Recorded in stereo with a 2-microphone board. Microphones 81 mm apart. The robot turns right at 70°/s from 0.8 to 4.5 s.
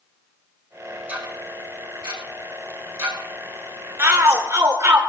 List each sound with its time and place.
1.1 s ticking: 15° right (ahead or behind), 4 m
4.0 s a shout: 120° right, 1.5 m; by 5.0 s 85° right, 1.5 m